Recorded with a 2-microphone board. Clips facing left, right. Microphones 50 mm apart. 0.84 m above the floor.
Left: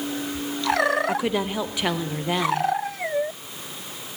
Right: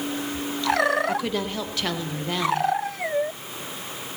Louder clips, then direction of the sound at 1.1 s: Left 2 dB; 15° left (ahead or behind).